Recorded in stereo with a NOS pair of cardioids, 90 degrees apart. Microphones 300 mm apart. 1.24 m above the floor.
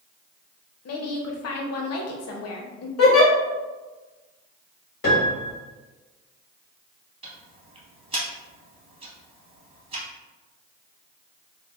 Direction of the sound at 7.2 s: 20° right.